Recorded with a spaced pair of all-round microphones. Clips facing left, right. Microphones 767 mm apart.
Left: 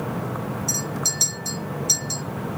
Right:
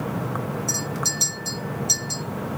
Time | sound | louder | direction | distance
0.7 | a clink | even | 20° left (ahead or behind) | 1.5 m